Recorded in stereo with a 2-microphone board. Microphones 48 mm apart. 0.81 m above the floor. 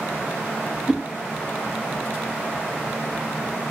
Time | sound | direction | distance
0.9 | a whoosh | 10° right (ahead or behind) | 1.2 m